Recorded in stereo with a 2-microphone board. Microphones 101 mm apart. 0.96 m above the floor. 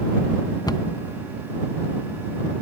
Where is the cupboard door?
35° left (ahead or behind).